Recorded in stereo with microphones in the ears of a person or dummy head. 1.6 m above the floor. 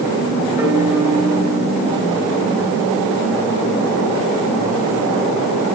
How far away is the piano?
About 7 m.